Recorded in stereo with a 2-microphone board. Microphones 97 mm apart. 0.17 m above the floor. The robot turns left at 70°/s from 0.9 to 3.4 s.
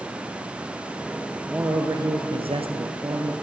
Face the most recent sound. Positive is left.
turn(degrees=-150)